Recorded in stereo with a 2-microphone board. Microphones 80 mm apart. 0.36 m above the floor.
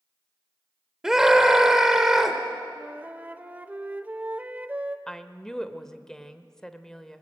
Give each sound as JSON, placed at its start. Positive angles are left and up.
{"t": 1.0, "sound": "a scream", "side_deg": -5, "distance_m": 1.4}
{"t": 2.8, "sound": "a flute", "side_deg": -20, "distance_m": 0.7}
{"t": 5.1, "sound": "a woman speaking", "side_deg": 10, "distance_m": 0.9}